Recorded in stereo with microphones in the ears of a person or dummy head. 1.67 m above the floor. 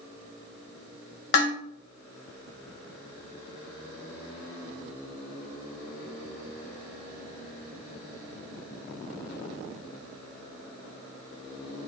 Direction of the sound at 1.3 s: 50° left (ahead or behind).